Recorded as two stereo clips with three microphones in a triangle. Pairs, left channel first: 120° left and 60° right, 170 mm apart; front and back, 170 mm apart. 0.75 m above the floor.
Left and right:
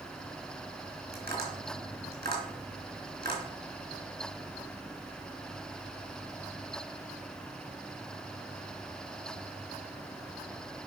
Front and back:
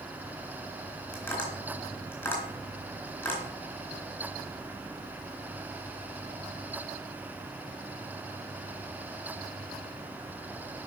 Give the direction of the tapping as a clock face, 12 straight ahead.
3 o'clock.